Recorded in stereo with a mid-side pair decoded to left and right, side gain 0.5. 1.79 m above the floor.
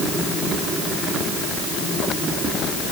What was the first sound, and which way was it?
Only background noise.